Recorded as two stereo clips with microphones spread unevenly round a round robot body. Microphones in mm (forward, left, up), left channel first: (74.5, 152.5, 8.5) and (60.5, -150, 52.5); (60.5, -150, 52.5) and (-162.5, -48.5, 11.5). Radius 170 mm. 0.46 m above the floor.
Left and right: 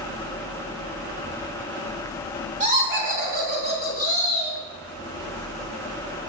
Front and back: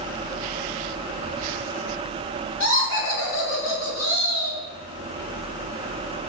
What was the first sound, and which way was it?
Laughter, 25° right.